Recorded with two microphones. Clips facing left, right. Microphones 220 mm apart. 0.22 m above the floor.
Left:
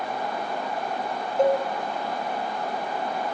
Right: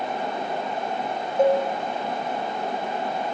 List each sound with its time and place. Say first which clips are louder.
1.4 s a cowbell: right 2 dB; 10° right (ahead or behind), 1.1 m